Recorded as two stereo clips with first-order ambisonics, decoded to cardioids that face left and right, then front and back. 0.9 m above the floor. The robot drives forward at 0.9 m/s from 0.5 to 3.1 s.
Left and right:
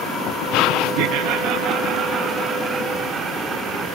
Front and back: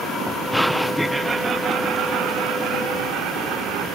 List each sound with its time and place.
1.0 s laughter: 80° right; by 3.9 s 160° right